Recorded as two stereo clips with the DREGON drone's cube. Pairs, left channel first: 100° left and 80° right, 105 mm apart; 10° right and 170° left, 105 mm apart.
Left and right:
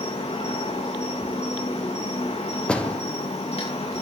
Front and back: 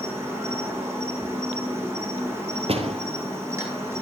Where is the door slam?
Straight behind, 2.5 m.